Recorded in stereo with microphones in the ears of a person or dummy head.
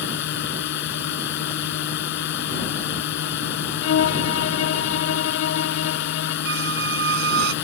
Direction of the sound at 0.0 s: 70° left (ahead or behind).